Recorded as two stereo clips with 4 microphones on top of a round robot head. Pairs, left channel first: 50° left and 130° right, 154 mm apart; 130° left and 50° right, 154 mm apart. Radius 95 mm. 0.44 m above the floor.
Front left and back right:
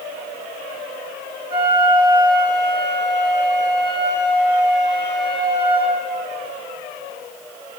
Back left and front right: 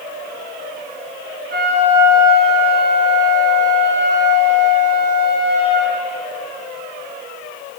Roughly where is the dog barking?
I don't hear a dog barking.